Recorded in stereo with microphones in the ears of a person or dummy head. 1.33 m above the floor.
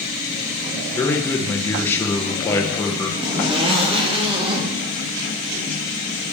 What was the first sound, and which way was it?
A man speaking, 10° left (ahead or behind).